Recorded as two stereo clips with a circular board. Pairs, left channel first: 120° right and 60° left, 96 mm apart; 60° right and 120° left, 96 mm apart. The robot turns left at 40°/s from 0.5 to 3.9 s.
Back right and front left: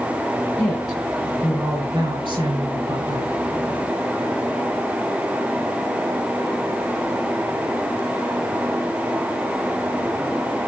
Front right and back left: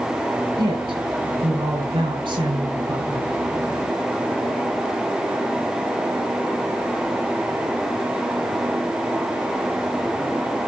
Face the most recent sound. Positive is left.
turn(degrees=25)